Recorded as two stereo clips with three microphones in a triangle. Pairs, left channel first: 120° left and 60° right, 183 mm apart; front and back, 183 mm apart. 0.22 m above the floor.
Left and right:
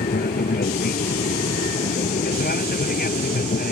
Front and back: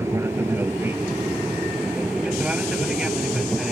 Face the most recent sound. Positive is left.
turn(degrees=90)